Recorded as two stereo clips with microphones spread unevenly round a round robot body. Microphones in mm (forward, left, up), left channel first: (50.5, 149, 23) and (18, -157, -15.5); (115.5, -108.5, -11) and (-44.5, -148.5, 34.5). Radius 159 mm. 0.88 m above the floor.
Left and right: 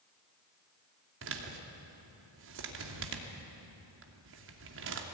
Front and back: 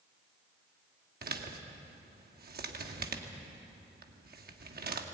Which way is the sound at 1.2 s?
140° right.